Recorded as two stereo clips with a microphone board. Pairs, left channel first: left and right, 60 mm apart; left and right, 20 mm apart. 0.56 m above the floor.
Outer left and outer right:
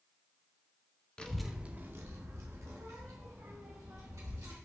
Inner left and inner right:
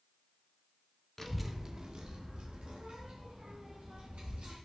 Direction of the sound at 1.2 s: 15° left (ahead or behind).